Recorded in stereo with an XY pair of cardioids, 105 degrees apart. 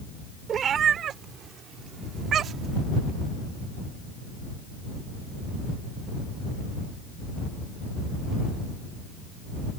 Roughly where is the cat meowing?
Ahead right.